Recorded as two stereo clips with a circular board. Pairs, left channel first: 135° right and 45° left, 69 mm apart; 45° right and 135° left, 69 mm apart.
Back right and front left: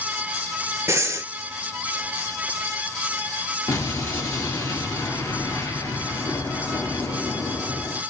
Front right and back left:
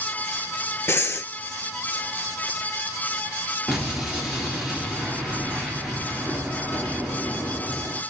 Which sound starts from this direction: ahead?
Breathing, at 0.9 s.